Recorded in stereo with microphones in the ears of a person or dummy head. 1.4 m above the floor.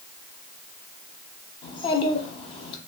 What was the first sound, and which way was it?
A child speaking, 30° left (ahead or behind).